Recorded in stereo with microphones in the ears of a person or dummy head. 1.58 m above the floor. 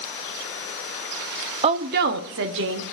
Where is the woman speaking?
30° right (ahead or behind), 0.5 m; by 2.8 s 70° right (ahead or behind), 1.7 m.